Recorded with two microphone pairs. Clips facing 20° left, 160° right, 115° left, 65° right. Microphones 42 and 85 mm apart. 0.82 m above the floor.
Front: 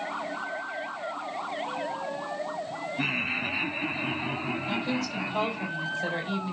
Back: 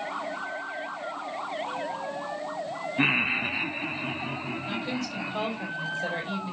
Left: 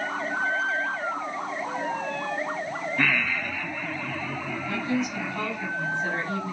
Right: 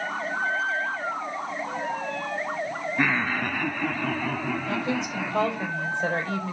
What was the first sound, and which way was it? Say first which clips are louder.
Laughter: back 5 dB, right 2 dB; 130° right.